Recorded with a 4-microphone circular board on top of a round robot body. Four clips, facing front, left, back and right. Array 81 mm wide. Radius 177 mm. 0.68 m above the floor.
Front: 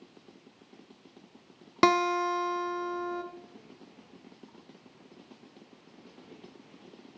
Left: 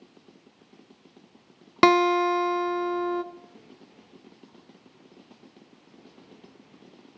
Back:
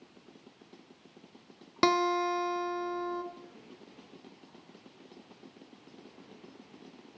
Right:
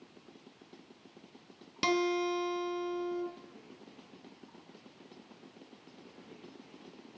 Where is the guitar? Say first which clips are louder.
Left 11 dB, front 2 dB; 80° left, 1.0 m.